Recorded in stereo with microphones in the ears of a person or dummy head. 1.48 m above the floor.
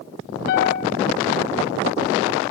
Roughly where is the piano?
Left.